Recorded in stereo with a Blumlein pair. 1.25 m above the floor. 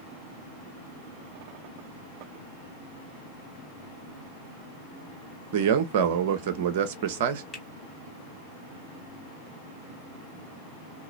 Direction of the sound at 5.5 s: 50° right.